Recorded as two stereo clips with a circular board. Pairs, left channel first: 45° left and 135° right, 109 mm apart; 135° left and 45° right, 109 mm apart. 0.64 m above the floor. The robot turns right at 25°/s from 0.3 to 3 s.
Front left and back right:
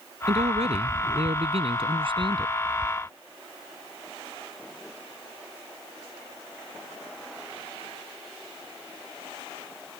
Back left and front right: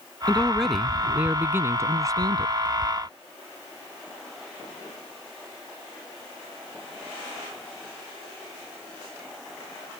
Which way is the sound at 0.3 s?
145° right.